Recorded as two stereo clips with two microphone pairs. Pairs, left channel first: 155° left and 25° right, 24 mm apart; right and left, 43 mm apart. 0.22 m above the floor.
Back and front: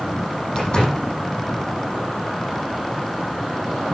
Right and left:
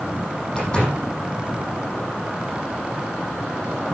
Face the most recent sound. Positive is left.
turn(degrees=-155)